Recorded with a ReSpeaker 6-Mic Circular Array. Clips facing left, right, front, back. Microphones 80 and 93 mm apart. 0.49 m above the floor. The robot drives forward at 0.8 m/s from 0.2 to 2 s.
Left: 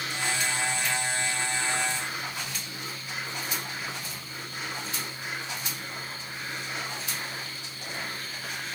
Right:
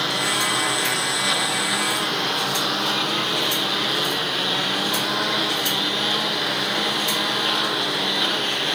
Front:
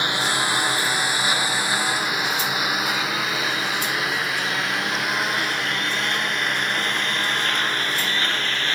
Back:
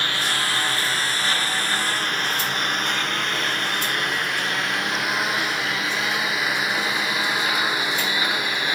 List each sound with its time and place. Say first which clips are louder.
0.0 s a lawn mower: right 7 dB, front 2 dB; 70° right; by 8.8 s 100° right